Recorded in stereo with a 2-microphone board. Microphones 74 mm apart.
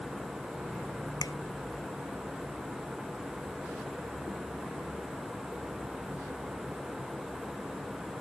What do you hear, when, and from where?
1.2 s a finger snap: 60° left (ahead or behind)